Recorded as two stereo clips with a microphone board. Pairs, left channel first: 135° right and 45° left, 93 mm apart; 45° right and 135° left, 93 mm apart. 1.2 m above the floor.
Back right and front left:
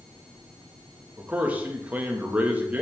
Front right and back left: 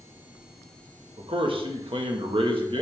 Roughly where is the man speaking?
Behind left.